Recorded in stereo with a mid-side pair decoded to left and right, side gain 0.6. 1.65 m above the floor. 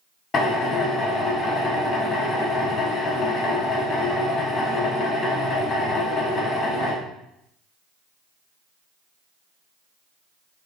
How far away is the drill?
About 1.6 m.